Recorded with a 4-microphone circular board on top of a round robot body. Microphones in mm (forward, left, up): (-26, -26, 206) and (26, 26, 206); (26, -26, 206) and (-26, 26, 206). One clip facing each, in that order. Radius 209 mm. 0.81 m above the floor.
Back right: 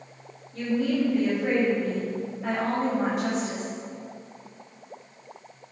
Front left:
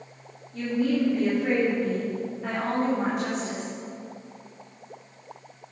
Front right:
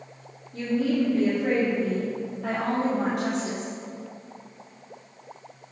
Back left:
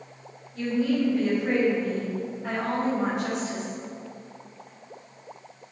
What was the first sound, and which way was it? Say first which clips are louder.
A woman speaking: even, even; 45° right.